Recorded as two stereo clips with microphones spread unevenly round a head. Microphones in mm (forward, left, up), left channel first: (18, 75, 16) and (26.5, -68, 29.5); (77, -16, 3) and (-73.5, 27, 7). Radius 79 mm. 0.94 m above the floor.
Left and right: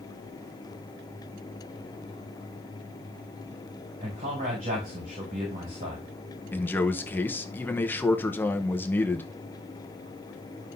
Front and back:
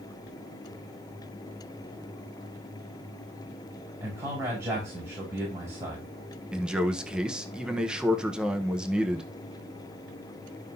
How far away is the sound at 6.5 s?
About 0.8 m.